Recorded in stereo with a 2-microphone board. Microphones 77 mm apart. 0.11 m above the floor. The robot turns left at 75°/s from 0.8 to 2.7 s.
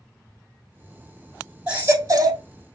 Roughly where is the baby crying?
Ahead.